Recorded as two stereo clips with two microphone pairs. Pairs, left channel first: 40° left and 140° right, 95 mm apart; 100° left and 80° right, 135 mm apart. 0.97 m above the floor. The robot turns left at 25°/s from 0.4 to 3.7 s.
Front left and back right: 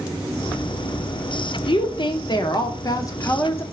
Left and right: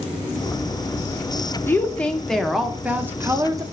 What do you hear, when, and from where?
1.7 s a woman speaking: 30° left, 0.6 m; by 3.6 s 20° right, 0.6 m